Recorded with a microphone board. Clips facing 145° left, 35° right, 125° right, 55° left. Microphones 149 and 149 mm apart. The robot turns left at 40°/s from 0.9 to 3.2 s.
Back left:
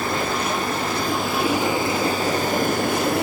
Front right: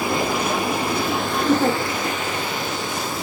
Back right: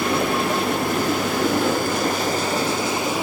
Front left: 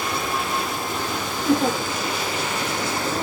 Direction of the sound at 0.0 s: 110° right.